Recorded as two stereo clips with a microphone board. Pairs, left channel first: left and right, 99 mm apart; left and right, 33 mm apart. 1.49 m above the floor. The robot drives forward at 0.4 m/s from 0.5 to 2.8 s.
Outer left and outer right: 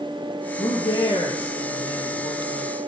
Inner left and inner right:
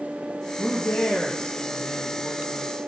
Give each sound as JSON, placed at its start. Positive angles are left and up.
{"t": 0.6, "sound": "a man speaking", "side_deg": 85, "distance_m": 1.7}